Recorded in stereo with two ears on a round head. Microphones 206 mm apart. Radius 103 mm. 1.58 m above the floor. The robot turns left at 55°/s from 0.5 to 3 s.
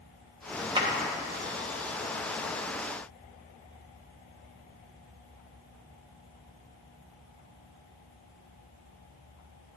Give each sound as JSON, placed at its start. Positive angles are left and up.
{"t": 0.8, "sound": "a clap", "side_deg": -20, "distance_m": 1.7}